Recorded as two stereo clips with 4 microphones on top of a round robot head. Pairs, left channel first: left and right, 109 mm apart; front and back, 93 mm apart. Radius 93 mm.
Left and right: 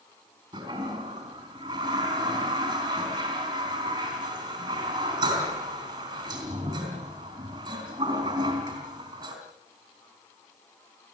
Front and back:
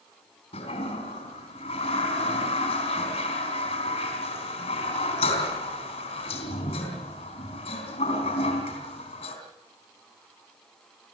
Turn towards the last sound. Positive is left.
turn(degrees=-30)